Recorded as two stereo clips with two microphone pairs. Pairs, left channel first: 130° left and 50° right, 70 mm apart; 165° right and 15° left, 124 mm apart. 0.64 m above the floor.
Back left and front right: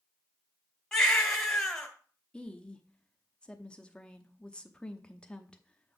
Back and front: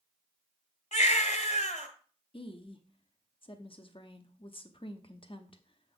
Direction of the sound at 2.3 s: 160° right.